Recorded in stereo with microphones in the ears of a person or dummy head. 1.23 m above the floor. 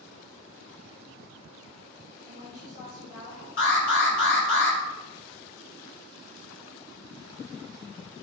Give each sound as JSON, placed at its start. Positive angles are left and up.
{"t": 2.2, "sound": "a woman speaking", "side_deg": 65, "distance_m": 3.5}
{"t": 3.6, "sound": "an alarm", "side_deg": 80, "distance_m": 4.0}